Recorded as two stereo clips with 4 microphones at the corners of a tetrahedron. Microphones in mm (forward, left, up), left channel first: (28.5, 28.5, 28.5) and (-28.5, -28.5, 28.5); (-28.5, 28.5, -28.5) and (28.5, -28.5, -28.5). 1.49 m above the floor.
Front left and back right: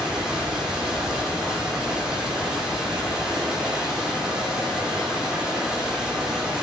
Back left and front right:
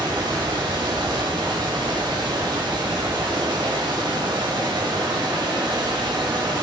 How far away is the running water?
About 3 m.